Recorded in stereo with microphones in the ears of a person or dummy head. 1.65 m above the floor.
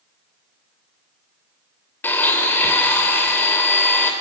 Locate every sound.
2.0 s a blender: 10° left (ahead or behind), 3 m